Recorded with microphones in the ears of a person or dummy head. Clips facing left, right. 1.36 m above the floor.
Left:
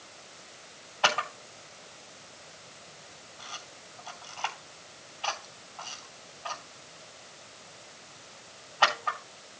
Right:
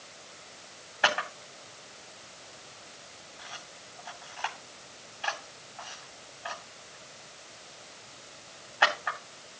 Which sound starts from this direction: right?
A camera shutter, at 1.0 s.